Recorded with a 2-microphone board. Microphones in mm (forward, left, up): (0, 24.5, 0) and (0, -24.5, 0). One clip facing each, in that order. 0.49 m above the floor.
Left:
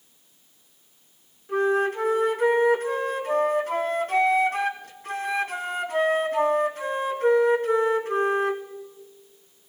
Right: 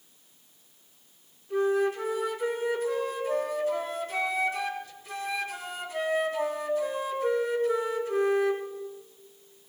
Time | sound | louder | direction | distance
1.5 | a flute | left 3 dB | 50° left (ahead or behind) | 2.5 m